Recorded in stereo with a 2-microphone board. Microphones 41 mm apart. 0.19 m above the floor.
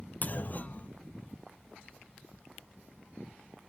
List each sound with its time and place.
0.2 s a clunk: 40° left (ahead or behind), 1.3 m